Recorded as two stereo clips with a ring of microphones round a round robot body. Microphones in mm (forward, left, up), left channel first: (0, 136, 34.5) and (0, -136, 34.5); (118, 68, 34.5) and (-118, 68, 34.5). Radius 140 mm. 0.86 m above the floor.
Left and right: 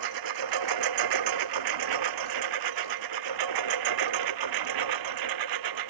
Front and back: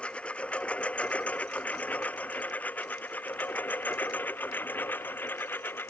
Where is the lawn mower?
85° right.